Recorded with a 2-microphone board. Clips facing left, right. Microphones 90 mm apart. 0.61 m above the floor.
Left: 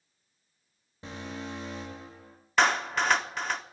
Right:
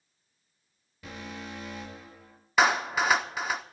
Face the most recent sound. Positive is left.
turn(degrees=-5)  # may be behind; listen again after turning